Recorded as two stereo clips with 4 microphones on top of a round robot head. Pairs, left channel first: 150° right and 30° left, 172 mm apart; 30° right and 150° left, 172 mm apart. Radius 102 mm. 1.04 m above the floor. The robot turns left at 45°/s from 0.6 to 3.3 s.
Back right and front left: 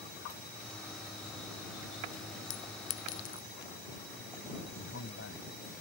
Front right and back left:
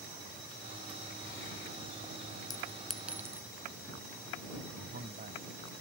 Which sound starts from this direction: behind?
A man speaking, at 4.8 s.